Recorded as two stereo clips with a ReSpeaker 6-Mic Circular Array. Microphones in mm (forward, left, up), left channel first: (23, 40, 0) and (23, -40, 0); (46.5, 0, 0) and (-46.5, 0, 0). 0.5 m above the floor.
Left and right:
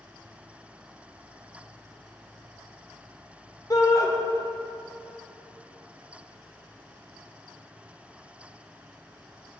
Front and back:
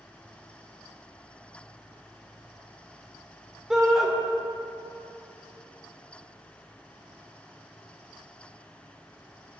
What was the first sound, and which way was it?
A shout, 100° left.